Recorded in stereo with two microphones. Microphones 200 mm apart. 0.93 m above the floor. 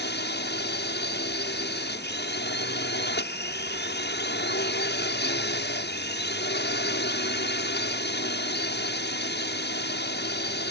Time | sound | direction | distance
0.0 | a drone | 60° left (ahead or behind) | ?